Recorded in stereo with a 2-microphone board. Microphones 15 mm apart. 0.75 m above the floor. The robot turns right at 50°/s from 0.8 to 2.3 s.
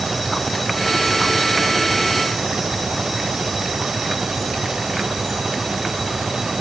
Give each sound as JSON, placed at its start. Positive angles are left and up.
{"t": 0.0, "sound": "an engine running", "azimuth_deg": 180}